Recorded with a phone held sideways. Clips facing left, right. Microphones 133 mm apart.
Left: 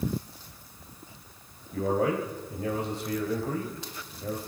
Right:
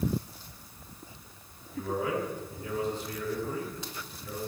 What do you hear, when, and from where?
1.7 s a man speaking: 70° left (ahead or behind), 4 m